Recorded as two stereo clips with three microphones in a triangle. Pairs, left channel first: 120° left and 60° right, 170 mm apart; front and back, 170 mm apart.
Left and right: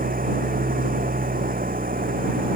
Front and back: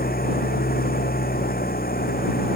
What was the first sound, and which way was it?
An engine running, 25° right.